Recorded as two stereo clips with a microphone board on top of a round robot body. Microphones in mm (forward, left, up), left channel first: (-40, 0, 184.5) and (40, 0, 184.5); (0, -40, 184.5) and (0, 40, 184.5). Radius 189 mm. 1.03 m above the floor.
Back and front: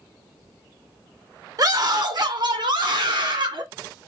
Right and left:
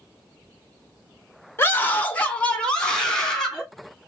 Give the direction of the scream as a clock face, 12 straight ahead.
1 o'clock.